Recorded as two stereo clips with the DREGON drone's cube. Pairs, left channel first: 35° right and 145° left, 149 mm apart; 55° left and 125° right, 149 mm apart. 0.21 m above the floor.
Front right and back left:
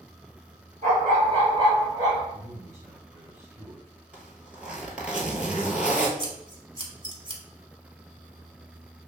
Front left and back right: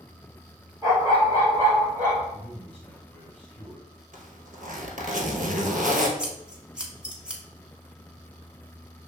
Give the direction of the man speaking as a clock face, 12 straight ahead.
8 o'clock.